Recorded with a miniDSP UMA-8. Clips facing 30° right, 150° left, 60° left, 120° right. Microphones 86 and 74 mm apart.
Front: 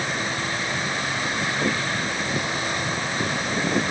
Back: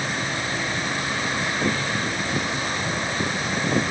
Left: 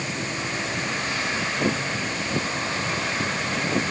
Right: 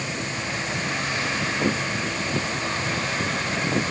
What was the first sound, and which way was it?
Only background noise.